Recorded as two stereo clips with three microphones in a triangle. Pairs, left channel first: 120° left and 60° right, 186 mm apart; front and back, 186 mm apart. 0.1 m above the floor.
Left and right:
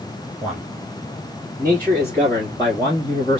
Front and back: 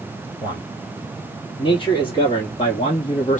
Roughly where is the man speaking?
Ahead.